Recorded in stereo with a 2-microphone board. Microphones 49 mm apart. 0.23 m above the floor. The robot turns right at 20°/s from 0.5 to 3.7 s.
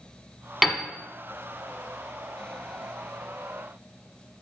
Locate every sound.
0.6 s a piano: centre (ahead or behind), 1.0 m